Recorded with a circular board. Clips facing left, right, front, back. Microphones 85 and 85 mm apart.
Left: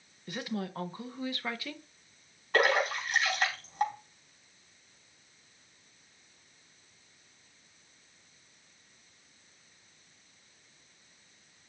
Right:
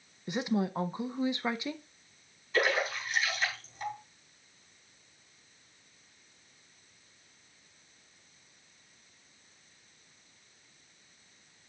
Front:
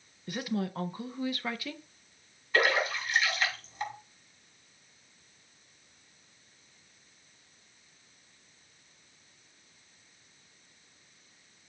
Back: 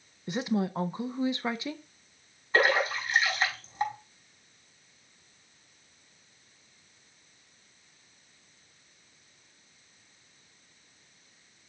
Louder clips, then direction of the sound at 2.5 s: Left 3 dB, back 2 dB; 120° left.